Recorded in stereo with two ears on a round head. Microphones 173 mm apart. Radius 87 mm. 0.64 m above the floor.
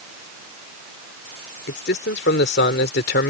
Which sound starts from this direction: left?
A man speaking, at 1.7 s.